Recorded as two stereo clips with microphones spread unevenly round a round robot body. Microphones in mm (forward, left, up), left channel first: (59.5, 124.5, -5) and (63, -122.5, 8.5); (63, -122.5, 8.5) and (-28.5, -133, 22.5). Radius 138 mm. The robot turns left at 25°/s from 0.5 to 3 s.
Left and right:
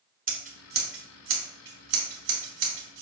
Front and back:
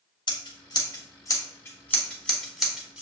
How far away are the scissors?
About 2 m.